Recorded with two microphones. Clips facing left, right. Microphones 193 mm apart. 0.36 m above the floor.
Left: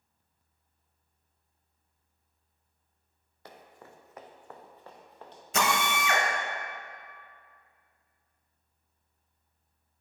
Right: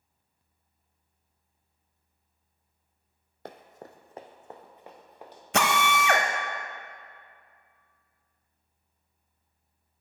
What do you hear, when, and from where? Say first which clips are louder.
3.5 s running footsteps: right 6 dB; 55° right (ahead or behind), 0.5 m; by 5.4 s 10° right (ahead or behind), 1.6 m
5.5 s a drill: right 3 dB; 70° right (ahead or behind), 0.6 m